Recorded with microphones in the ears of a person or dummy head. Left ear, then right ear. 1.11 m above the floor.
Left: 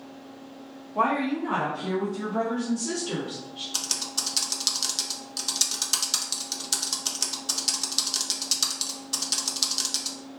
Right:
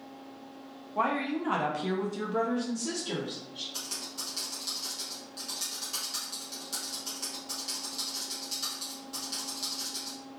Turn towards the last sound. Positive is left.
turn(degrees=35)  # may be behind; listen again after turning